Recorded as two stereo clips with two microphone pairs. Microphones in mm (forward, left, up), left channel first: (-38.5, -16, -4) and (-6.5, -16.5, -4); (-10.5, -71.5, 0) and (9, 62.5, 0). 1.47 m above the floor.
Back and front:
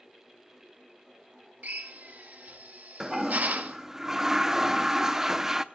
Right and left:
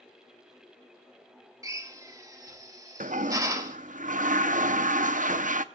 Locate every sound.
1.6 s a drill: 20° left, 1.6 m
3.0 s a toilet flushing: 75° left, 0.7 m